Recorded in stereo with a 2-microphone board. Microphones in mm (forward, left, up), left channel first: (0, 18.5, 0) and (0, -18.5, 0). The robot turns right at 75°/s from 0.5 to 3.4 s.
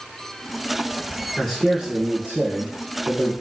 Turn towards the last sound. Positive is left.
turn(degrees=-40)